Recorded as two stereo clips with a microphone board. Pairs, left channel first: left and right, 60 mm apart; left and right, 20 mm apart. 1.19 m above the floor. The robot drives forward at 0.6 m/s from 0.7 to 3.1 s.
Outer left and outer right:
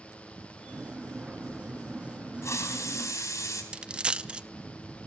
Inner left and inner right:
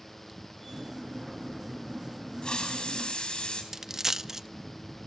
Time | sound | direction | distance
2.4 | a hiss | 50° left (ahead or behind) | 4 m
3.7 | a dropped coin | 20° right (ahead or behind) | 0.6 m